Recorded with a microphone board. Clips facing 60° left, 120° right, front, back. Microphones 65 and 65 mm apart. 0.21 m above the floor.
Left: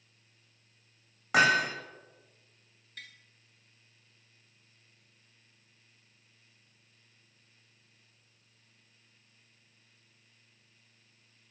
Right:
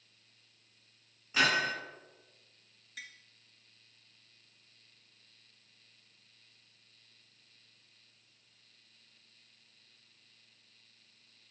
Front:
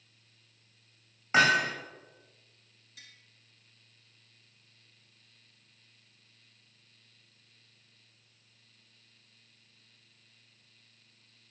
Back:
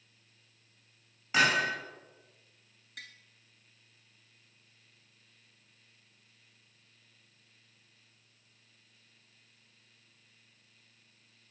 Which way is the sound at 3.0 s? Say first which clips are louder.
Right 1 dB, back 7 dB; 160° left.